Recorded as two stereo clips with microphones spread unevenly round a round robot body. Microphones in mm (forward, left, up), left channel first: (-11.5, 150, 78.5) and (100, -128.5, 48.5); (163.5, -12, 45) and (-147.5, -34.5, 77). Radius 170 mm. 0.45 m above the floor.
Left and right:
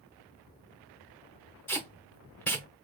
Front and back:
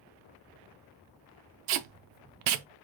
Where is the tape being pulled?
160° right, 0.6 m.